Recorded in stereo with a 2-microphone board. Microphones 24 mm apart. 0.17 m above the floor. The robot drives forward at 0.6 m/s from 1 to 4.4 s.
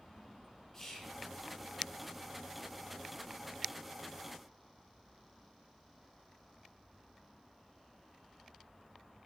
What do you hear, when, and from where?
0.7 s whispering: 10° left (ahead or behind), 3 m